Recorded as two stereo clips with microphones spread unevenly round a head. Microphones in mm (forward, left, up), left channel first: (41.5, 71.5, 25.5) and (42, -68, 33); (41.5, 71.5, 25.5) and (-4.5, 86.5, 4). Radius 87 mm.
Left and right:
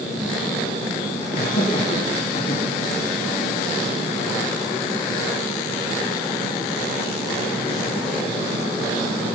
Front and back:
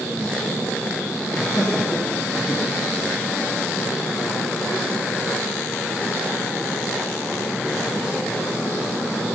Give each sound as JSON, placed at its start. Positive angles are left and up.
{"t": 1.3, "sound": "laughter", "azimuth_deg": 50, "distance_m": 3.0}